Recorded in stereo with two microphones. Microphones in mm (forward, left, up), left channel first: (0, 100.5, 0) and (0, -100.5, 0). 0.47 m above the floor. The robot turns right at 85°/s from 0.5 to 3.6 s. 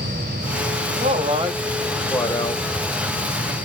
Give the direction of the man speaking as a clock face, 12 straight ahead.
3 o'clock.